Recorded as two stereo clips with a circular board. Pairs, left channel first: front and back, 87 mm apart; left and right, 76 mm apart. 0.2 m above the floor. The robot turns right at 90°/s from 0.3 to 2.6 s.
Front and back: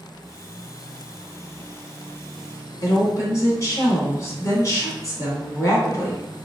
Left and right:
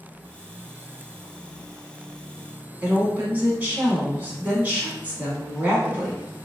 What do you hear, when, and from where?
2.8 s a woman speaking: 30° right, 1.4 m